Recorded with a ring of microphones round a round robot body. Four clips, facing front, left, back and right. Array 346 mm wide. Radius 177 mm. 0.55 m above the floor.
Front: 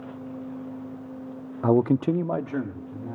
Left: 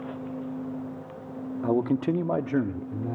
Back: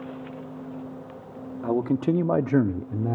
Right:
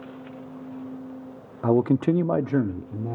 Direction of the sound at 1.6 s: 35° right.